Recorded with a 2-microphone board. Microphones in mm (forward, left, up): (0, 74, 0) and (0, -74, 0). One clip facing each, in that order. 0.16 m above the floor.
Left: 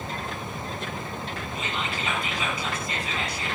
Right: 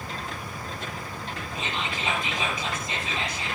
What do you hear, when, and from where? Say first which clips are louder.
1.6 s whispering: even; 20° right (ahead or behind), 5 m